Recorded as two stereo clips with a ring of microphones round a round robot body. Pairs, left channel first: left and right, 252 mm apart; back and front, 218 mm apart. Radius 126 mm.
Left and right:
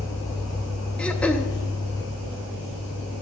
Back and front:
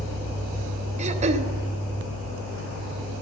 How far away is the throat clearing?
About 0.7 m.